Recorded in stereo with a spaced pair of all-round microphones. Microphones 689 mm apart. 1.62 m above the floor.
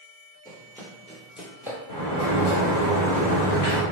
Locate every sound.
0.5 s running footsteps: 5° left (ahead or behind), 2.0 m; by 1.8 s 5° right (ahead or behind), 1.6 m
1.9 s a sliding door: 45° left (ahead or behind), 1.9 m